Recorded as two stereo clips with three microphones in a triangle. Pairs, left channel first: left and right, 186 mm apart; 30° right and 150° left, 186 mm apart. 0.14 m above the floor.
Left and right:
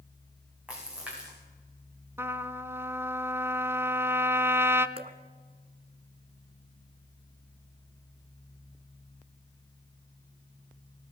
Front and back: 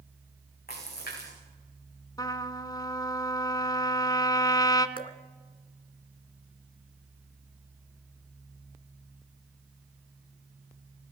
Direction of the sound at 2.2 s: 40° right.